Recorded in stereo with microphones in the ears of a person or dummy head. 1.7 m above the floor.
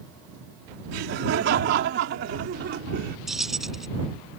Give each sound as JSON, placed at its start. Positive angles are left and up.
{"t": 0.9, "sound": "laughter", "side_deg": -70}
{"t": 3.3, "sound": "keys jangling", "side_deg": 0}